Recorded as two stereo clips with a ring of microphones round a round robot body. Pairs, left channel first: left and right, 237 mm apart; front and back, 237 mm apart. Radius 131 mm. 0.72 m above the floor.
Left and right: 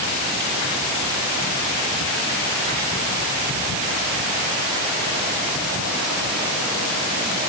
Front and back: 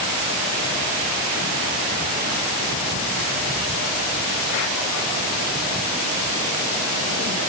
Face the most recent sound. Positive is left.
No sound to turn to.